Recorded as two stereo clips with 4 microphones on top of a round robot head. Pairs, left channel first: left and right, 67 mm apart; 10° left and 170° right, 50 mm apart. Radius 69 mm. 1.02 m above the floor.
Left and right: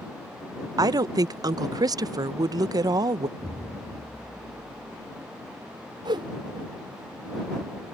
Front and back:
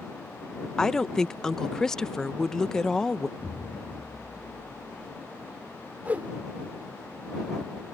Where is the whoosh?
105° right.